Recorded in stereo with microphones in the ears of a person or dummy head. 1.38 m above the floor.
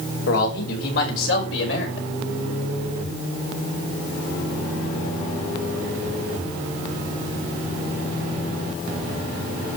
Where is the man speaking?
80° left, 4.5 m; by 2.1 s 85° left, 5.5 m.